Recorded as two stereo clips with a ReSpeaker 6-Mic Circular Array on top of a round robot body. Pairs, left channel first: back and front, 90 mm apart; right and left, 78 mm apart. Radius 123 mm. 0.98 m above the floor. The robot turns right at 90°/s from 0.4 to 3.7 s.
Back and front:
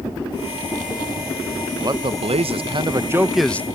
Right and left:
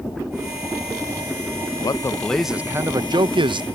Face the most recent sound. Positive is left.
turn(degrees=115)